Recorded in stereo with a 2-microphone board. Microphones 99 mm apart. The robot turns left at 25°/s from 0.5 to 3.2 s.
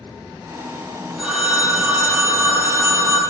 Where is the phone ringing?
15° right, 0.8 m; by 3.2 s 65° right, 0.8 m.